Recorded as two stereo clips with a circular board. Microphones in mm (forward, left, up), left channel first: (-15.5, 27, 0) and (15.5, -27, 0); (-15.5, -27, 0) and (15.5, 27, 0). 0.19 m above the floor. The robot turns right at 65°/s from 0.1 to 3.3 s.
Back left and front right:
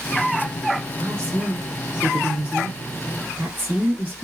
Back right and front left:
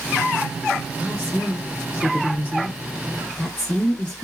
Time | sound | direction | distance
1.0 | a woman speaking | 165° left | 1.5 m